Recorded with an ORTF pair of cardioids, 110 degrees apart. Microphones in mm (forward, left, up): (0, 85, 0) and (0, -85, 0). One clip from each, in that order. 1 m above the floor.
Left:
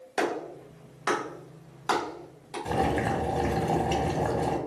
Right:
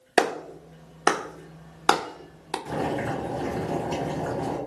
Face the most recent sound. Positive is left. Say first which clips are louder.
# left 3 dB
turn(degrees=60)